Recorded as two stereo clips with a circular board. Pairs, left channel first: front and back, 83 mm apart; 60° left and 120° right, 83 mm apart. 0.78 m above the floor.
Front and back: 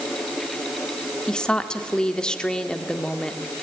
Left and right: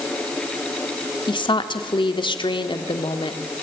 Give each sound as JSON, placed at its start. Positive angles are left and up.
{"t": 1.3, "sound": "a woman speaking", "azimuth_deg": 80, "distance_m": 1.7}